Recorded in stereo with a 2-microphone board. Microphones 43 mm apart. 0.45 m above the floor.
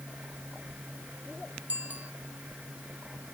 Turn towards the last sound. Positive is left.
turn(degrees=-40)  # may be behind; listen again after turning